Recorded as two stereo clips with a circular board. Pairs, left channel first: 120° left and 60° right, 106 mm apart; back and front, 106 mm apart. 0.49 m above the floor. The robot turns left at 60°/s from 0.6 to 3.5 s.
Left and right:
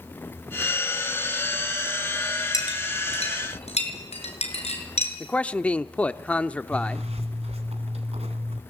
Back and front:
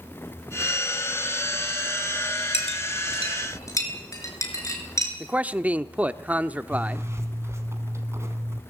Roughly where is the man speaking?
Ahead left.